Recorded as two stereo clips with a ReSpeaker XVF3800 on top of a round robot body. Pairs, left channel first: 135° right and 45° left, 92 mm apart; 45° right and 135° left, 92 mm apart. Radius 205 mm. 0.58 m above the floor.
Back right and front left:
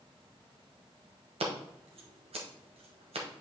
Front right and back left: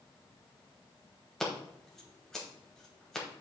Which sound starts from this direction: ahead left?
Scissors, at 1.4 s.